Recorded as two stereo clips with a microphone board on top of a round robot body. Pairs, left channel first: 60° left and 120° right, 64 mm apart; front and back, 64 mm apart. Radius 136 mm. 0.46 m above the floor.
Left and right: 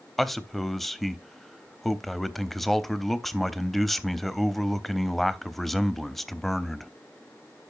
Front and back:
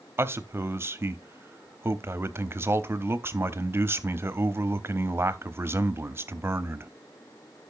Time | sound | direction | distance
0.2 | a man speaking | 145° left | 0.9 m